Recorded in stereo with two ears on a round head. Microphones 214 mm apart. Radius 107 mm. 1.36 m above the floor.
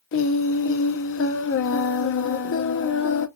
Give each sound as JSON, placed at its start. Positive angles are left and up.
{"t": 0.1, "sound": "singing", "side_deg": 55, "distance_m": 0.5}